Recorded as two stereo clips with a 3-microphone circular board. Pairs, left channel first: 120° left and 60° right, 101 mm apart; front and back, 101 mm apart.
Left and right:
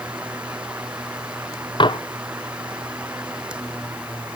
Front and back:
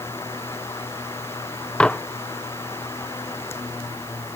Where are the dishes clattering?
80° left.